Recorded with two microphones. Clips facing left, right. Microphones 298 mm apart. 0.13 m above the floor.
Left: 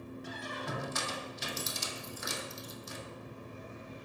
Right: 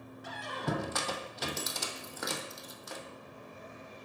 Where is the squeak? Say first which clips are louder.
Right 7 dB; 75° right (ahead or behind), 0.8 m.